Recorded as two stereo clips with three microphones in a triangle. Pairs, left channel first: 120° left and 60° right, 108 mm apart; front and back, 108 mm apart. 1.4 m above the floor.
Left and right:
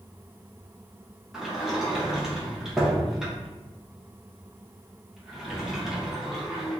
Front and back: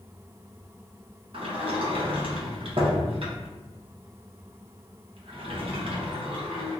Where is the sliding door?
145° right, 0.7 m.